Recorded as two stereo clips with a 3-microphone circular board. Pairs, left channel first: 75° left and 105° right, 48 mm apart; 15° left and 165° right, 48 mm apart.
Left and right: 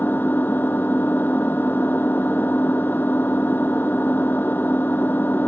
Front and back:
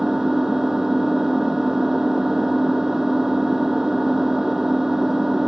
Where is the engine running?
115° left.